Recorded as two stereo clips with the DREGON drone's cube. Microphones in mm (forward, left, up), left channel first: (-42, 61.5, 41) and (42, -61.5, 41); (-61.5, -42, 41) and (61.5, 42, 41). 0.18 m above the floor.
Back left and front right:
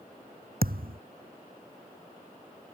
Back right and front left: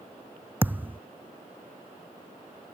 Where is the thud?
45° right.